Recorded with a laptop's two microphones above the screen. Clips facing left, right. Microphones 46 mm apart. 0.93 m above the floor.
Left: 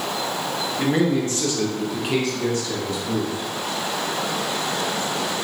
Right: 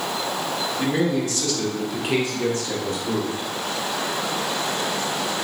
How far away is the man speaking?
About 1.2 m.